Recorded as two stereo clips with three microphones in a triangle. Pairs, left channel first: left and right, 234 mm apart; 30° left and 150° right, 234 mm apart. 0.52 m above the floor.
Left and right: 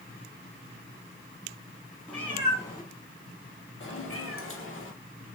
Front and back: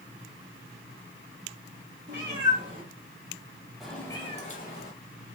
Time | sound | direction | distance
2.1 | a cat meowing | 175° left | 1.2 m